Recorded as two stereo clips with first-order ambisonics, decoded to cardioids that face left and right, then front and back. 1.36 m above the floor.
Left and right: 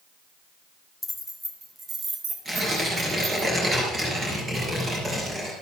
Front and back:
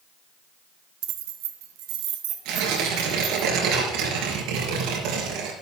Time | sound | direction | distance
1.0 | keys jangling | 170° left | 1.2 m
2.5 | tearing paper | 165° right | 4 m